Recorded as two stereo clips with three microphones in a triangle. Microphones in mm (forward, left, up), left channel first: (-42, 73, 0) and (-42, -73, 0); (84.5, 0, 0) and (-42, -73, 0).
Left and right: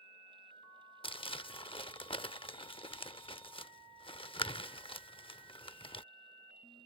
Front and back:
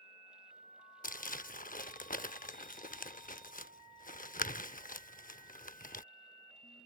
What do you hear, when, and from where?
1.0 s crumpling: 40° left